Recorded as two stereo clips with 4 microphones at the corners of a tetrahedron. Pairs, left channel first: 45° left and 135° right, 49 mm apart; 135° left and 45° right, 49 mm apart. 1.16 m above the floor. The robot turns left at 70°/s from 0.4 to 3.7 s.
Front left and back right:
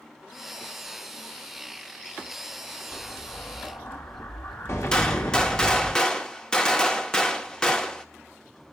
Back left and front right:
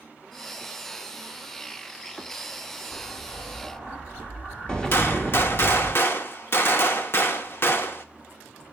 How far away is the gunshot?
About 1.0 m.